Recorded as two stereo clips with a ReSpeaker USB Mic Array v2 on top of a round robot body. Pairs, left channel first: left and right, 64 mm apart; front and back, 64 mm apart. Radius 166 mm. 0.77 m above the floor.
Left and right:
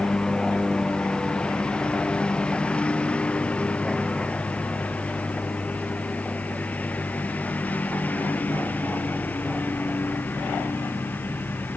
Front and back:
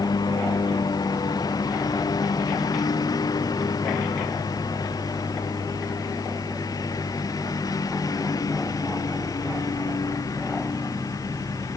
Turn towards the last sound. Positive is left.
turn(degrees=30)